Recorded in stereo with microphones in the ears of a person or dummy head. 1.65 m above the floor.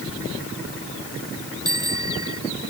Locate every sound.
1.6 s a bicycle bell: 20° right (ahead or behind)